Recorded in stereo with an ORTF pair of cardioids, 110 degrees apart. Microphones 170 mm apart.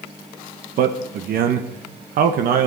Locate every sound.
0.8 s a man speaking: 60° right, 1.1 m